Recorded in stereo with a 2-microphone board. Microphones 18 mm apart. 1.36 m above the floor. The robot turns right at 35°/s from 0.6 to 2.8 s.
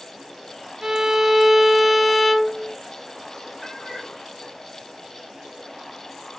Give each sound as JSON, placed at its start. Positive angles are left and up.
{"t": 0.8, "sound": "a violin", "azimuth_deg": -45, "distance_m": 0.8}
{"t": 3.6, "sound": "a cat meowing", "side_deg": 10, "distance_m": 3.0}